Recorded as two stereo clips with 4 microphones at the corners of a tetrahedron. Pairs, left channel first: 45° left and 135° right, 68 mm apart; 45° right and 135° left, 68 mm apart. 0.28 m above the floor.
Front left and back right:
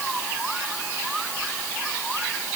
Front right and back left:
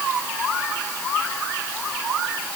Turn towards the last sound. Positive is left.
No sound to turn to.